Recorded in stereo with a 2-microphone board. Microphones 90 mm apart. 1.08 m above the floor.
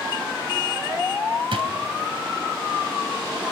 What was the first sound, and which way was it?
A drawer, 75° right (ahead or behind).